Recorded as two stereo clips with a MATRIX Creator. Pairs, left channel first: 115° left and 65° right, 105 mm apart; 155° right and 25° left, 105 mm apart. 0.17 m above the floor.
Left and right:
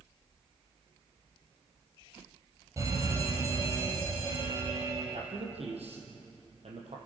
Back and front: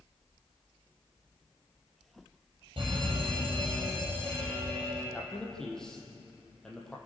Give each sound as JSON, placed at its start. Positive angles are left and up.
{"t": 2.8, "sound": "a fire alarm", "azimuth_deg": -10, "distance_m": 8.0}
{"t": 5.1, "sound": "a man speaking", "azimuth_deg": -75, "distance_m": 5.5}